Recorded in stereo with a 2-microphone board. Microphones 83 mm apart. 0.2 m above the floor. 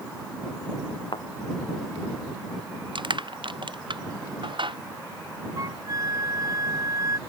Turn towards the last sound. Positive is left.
turn(degrees=-40)  # may be behind; listen again after turning